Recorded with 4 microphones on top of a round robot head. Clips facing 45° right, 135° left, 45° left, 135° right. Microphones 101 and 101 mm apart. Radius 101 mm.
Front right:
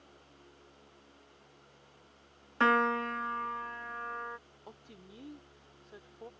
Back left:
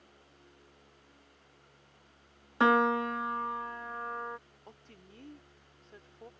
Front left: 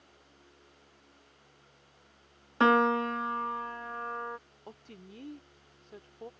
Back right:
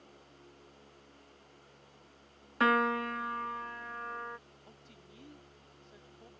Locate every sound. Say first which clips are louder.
2.6 s a piano: back left 2 dB, front left 4 dB; 80° left
4.7 s a woman speaking: front right 3 dB, front left 7 dB; 35° left